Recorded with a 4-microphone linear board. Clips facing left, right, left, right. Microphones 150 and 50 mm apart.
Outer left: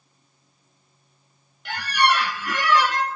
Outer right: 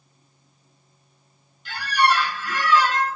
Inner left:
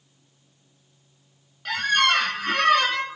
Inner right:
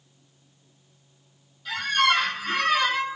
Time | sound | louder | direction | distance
1.6 | a squeak | outer right 1 dB, inner left 1 dB | 70° left (ahead or behind) | 0.8 m